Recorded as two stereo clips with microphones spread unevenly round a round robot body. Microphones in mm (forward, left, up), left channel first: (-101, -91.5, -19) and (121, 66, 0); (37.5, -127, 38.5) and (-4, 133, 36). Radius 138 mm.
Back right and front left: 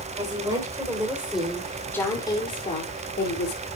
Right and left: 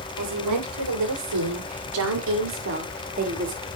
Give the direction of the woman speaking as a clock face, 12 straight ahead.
8 o'clock.